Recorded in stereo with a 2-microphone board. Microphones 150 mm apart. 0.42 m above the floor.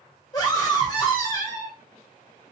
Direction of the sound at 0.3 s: 25° left (ahead or behind).